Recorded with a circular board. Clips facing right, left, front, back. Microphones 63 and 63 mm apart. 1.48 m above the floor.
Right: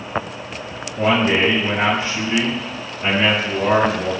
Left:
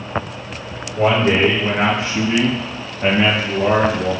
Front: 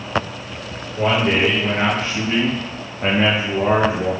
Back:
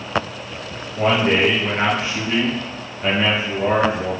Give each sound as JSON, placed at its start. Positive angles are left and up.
{"t": 0.9, "sound": "a man speaking", "azimuth_deg": 115, "distance_m": 1.2}